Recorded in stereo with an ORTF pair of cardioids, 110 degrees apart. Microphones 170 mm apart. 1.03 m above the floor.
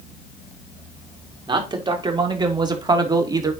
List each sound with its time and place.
1.5 s a man speaking: 25° right, 4 m; by 3.5 s 20° right, 2.5 m